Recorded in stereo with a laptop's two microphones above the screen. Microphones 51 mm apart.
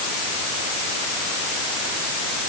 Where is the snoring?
I don't hear snoring.